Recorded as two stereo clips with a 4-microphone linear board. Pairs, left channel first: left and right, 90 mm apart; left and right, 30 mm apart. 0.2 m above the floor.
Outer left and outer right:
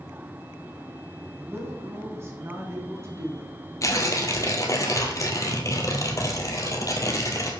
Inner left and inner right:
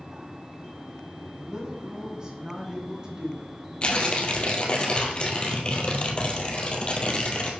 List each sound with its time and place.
1.4 s a woman speaking: 25° right (ahead or behind), 1.7 m; by 3.5 s 30° right (ahead or behind), 3 m
3.8 s tearing paper: 35° left (ahead or behind), 1.6 m